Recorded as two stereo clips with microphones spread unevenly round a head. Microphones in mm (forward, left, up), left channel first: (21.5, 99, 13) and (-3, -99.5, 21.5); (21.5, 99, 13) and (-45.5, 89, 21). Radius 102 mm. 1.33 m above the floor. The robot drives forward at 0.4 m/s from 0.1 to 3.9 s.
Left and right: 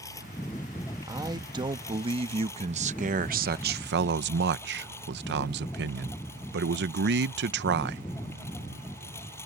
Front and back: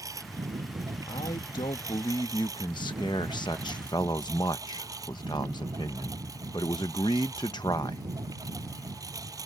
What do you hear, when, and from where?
0.0 s a lawn mower: 160° left
1.1 s a man speaking: 25° right; by 8.0 s 60° right